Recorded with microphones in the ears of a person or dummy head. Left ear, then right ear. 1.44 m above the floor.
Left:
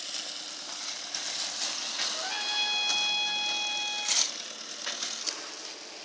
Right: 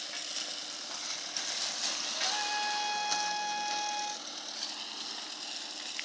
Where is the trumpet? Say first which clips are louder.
Left 2 dB; 50° left (ahead or behind), 2.5 m.